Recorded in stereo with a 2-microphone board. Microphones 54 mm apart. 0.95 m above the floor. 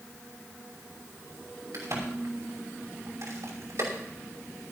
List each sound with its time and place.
1.7 s a crack: 70° right (ahead or behind), 5.5 m